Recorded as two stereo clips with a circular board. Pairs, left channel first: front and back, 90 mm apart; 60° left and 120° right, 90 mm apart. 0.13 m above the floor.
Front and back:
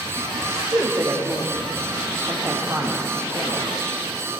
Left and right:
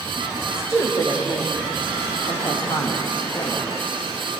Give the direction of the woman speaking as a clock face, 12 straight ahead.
8 o'clock.